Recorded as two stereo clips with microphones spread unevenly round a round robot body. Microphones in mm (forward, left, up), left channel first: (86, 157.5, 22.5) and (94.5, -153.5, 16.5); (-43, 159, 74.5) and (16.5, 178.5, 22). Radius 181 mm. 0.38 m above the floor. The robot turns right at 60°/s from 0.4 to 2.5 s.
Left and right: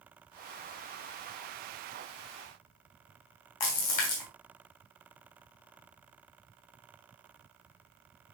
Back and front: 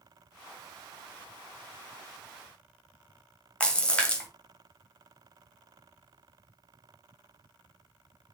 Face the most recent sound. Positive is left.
turn(degrees=100)